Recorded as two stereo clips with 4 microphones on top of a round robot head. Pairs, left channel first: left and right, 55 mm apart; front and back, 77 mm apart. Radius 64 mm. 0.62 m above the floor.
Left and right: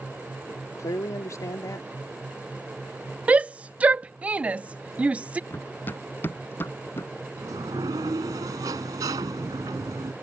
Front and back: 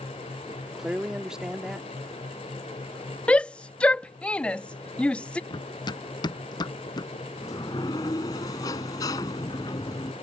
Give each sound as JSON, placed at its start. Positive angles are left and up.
{"t": 0.5, "sound": "a man speaking", "azimuth_deg": 95}
{"t": 3.3, "sound": "a shout", "azimuth_deg": -60}
{"t": 5.5, "sound": "running footsteps", "azimuth_deg": 25}
{"t": 7.4, "sound": "a sliding door", "azimuth_deg": -55}